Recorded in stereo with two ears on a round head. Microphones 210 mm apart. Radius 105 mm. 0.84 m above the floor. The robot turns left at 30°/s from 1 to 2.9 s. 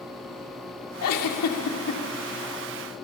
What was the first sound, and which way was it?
A giggle, 70° left (ahead or behind).